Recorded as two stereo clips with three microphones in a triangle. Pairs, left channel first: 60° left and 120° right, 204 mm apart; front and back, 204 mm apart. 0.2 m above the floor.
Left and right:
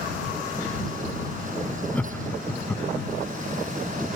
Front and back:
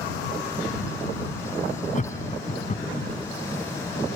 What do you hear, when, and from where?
1.9 s laughter: 20° right